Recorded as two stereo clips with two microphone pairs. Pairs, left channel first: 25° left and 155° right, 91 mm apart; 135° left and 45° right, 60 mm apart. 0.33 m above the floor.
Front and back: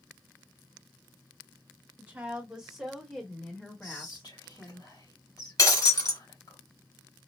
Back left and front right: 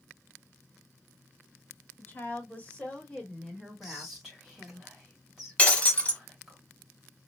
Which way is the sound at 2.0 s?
150° left.